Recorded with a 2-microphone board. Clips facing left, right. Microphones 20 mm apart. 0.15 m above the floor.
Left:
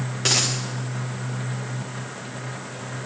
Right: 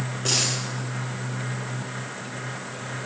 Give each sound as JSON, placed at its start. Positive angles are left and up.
{"t": 0.2, "sound": "a dropped coin", "side_deg": 80, "distance_m": 4.5}